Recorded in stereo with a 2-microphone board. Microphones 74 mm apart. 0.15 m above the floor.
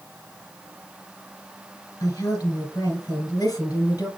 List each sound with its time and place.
2.0 s a woman speaking: 50° left (ahead or behind), 1.7 m